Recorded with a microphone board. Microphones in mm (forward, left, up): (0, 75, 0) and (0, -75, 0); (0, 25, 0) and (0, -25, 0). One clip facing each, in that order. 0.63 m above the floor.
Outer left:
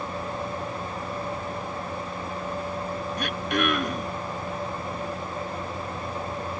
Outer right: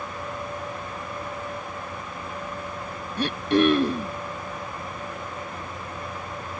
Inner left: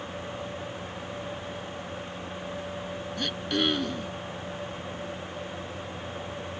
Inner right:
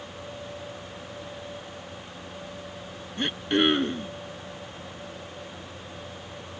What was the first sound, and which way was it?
Throat clearing, 30° right (ahead or behind).